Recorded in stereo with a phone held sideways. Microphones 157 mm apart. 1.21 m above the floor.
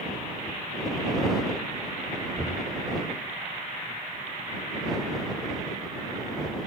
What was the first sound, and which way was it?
Knocking, 5° left (ahead or behind).